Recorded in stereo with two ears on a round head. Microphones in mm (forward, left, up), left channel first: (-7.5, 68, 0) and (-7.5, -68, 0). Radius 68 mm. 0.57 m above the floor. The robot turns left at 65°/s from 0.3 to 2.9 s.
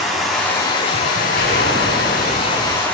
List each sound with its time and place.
0.0 s running water: straight behind, 3 m; by 3.0 s 10° left, 3 m
1.4 s a gunshot: 110° left, 8 m; by 2.9 s 10° left, 8 m